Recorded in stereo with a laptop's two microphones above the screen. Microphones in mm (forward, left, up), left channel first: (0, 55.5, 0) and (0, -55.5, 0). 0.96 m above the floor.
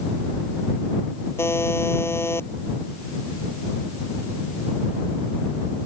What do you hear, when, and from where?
1.4 s a buzzer: 20° left (ahead or behind)